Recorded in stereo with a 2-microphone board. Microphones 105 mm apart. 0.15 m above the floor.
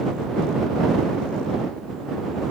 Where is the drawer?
I don't hear a drawer.